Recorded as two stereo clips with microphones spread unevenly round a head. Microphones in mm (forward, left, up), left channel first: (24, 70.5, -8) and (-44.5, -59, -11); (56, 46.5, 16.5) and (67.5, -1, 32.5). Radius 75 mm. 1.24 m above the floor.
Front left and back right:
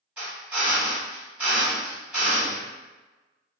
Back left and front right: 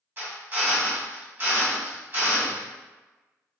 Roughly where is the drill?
Ahead right.